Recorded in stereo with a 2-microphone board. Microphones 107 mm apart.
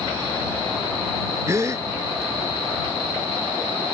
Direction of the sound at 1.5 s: 30° right (ahead or behind).